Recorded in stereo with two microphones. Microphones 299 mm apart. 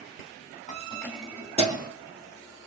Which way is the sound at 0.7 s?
25° left (ahead or behind).